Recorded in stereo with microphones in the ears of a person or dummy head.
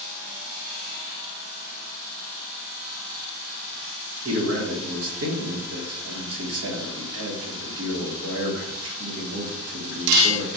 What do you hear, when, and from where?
4.2 s a man speaking: 80° right, 1.1 m